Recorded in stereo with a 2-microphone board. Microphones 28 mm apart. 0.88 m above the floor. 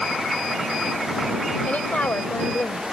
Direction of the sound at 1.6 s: 60° left (ahead or behind).